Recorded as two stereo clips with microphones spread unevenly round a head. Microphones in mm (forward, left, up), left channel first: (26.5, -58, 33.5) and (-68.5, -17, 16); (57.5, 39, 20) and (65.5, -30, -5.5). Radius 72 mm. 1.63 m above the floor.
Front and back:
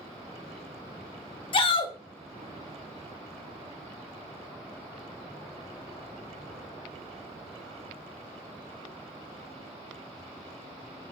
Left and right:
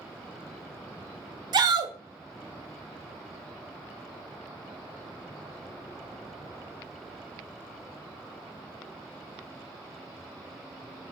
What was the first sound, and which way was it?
A shout, 60° right.